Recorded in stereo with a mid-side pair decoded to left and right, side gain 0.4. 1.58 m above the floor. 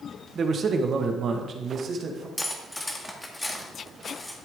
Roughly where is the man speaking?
Ahead right.